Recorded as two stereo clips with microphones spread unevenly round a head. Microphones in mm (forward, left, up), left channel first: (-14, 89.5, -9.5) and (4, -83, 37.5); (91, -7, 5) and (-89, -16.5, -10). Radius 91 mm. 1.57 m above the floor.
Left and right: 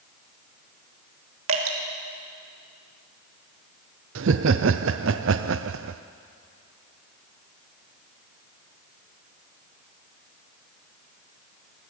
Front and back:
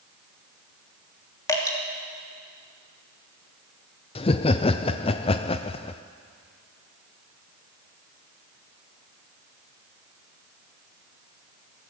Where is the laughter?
60° right, 0.5 m.